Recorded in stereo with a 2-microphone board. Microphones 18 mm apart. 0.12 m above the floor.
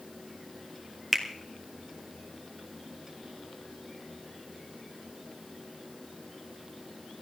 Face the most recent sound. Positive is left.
turn(degrees=5)  # may be behind; listen again after turning